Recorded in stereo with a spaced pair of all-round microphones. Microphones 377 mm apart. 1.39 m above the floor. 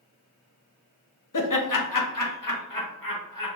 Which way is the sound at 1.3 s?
55° left (ahead or behind).